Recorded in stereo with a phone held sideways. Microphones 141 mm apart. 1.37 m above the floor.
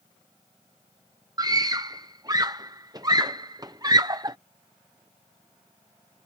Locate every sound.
1.4 s a scream: 30° right (ahead or behind)